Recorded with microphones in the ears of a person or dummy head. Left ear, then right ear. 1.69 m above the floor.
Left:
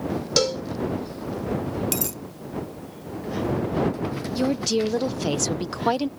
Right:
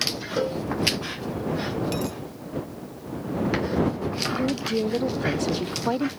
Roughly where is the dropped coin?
Left.